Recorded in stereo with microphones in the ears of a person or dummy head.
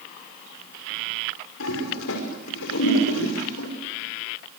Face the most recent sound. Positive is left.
turn(degrees=75)  # may be behind; listen again after turning